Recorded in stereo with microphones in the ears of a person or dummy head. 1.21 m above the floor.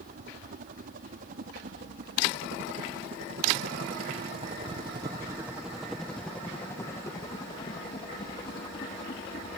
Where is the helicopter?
50° right (ahead or behind); by 9.6 s 30° left (ahead or behind).